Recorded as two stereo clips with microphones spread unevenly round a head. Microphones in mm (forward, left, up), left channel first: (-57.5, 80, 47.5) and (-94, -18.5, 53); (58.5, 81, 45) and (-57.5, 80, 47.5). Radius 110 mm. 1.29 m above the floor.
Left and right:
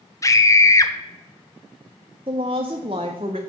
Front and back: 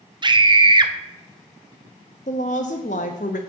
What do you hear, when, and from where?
0.2 s a scream: 130° left, 1.1 m
2.3 s a woman speaking: 50° right, 0.5 m